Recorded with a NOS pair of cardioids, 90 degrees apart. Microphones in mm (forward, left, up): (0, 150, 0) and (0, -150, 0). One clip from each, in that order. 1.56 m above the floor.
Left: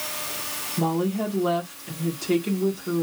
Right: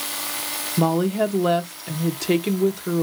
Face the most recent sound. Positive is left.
turn(degrees=-45)